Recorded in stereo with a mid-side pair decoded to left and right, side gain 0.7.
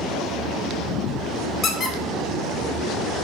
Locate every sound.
1.6 s a squeak: 30° left, 0.6 m